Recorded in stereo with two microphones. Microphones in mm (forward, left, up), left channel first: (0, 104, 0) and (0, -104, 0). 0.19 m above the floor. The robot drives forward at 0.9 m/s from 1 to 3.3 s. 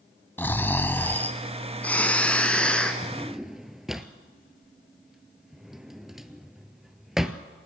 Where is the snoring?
10° left (ahead or behind), 1.2 m; by 2.9 s 5° left (ahead or behind), 2.5 m.